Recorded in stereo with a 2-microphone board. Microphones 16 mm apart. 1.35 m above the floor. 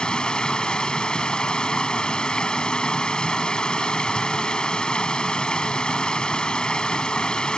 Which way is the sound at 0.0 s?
90° left.